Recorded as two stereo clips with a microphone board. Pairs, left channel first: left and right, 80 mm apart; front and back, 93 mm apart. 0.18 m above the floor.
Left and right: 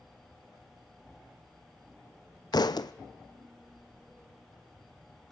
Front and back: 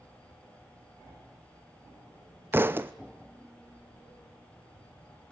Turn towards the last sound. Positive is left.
turn(degrees=115)